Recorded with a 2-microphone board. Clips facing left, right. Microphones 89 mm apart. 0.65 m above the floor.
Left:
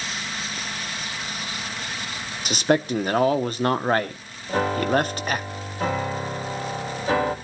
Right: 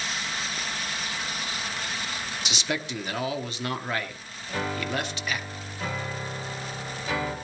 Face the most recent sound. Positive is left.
turn(degrees=40)  # may be behind; listen again after turning